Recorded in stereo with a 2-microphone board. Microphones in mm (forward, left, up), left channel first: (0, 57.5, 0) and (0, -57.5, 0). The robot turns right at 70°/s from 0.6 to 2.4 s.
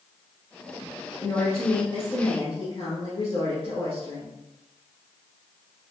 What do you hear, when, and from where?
1.2 s a woman speaking: 5° left, 2.0 m; by 4.4 s 90° left, 2.0 m